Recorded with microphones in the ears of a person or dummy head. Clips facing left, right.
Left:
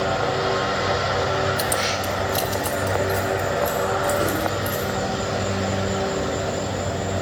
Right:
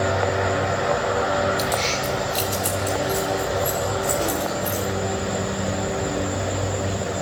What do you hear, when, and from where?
1.6 s keys jangling: 15° left (ahead or behind), 0.6 m; by 4.8 s 10° left (ahead or behind), 4.5 m